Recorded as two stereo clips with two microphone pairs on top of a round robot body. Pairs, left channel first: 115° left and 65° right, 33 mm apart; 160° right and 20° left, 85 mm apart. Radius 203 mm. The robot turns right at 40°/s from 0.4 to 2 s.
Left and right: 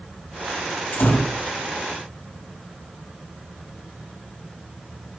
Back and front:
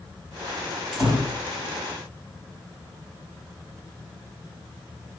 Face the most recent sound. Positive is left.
turn(degrees=150)